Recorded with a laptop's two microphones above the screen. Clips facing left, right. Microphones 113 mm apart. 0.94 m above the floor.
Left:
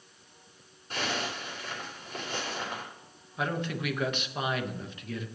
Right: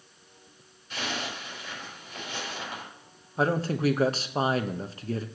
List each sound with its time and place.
0.9 s a zipper: 45° left (ahead or behind), 3.5 m
3.4 s a man speaking: 35° right (ahead or behind), 0.8 m